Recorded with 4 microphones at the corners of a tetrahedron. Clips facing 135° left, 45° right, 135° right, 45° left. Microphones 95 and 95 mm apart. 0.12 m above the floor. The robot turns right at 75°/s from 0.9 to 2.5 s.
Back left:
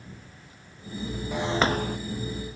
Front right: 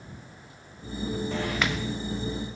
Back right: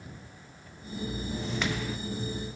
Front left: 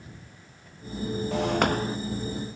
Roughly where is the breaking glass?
Ahead left.